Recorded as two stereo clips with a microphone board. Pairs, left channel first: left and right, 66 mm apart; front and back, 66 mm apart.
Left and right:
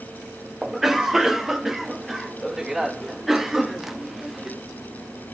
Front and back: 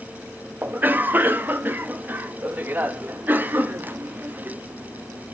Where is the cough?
170° right, 0.8 m.